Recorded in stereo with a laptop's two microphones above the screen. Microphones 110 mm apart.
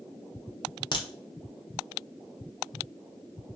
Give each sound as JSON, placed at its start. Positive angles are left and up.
{"t": 0.9, "sound": "a crack", "side_deg": 45, "distance_m": 0.6}